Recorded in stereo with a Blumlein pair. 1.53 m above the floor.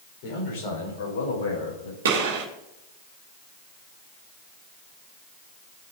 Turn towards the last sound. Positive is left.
turn(degrees=-60)